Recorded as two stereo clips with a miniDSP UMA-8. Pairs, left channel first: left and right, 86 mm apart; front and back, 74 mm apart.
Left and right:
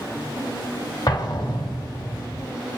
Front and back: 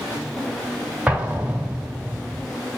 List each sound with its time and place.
1.1 s an explosion: 110° left, 1.0 m